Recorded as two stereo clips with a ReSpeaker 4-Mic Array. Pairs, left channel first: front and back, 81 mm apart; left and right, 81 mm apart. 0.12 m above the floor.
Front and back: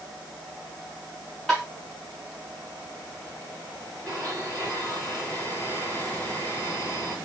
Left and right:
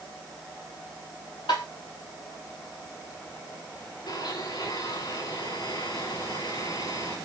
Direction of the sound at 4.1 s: 75° left.